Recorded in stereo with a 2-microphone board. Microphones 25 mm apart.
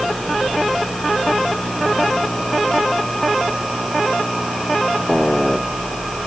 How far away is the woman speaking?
I don't hear a woman speaking.